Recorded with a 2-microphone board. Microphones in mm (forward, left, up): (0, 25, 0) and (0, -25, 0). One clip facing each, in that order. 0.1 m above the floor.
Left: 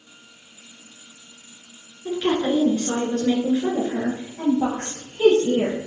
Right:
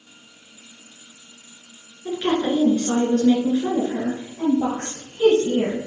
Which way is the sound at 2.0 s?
15° right (ahead or behind).